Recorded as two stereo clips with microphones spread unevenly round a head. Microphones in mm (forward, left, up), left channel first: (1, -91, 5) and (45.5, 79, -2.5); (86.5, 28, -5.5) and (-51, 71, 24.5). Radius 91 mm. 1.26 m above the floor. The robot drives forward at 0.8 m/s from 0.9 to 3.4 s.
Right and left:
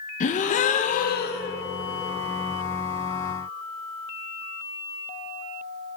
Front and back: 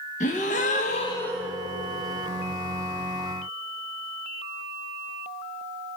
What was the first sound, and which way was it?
A gasp, 70° right.